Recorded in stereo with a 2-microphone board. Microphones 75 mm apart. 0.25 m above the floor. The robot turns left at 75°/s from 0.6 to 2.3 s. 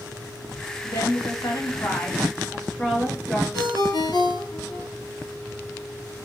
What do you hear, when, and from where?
0.8 s a woman speaking: 125° left, 4.5 m; by 3.4 s 15° left, 4.5 m
3.5 s a ringtone: 80° left, 2 m